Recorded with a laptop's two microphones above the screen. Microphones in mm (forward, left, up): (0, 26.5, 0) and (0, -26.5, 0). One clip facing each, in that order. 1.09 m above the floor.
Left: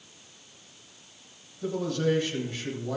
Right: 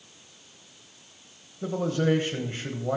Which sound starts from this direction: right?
A man speaking, at 1.6 s.